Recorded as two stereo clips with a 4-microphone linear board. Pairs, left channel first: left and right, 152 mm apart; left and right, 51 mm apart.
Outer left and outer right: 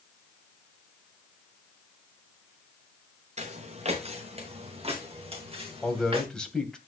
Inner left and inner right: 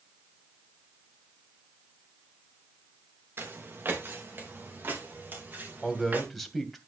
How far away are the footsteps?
About 2 m.